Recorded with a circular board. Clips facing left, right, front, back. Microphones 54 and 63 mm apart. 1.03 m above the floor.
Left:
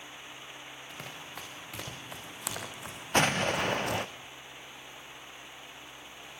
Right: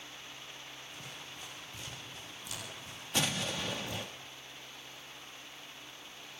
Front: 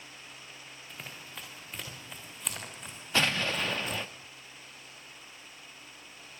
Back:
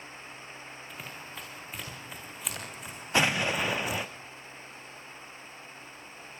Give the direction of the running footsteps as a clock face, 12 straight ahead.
9 o'clock.